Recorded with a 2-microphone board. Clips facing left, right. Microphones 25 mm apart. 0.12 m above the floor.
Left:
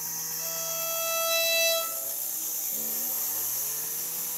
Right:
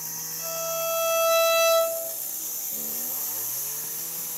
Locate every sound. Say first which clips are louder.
0.4 s a violin: right 7 dB; centre (ahead or behind), 1.6 m